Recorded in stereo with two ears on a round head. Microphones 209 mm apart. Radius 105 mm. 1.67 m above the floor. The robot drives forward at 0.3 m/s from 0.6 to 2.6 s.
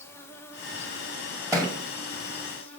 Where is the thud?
15° right (ahead or behind), 1.2 m.